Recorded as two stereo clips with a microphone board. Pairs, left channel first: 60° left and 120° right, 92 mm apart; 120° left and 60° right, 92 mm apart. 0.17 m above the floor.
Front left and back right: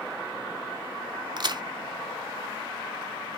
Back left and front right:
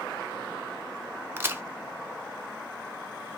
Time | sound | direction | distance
1.4 | a crack | 115° right | 0.6 m